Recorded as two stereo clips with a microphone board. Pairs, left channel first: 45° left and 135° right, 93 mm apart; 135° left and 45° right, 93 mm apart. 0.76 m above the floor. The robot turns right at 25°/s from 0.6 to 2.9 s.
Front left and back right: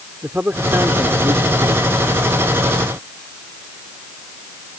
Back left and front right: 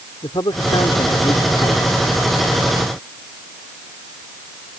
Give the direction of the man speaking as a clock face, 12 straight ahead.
7 o'clock.